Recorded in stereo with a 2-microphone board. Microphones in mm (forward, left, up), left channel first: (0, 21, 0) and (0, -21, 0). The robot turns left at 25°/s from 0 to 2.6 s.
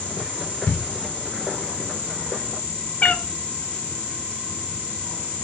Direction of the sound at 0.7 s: 35° left (ahead or behind).